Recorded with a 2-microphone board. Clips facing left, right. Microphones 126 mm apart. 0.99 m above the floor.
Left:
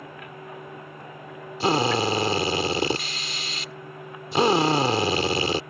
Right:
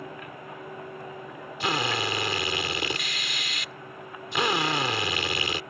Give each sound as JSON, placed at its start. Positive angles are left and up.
{"t": 1.6, "sound": "a drill", "side_deg": 35}